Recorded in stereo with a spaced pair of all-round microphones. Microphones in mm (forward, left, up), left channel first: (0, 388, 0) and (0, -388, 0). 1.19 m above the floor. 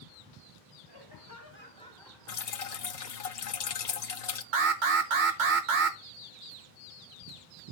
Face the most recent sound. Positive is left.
turn(degrees=-80)